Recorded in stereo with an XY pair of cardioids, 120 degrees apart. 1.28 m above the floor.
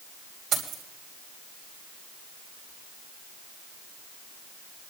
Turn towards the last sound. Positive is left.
turn(degrees=-50)